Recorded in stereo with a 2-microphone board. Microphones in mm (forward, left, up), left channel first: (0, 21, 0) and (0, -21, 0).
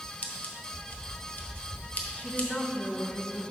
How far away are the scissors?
About 1.0 m.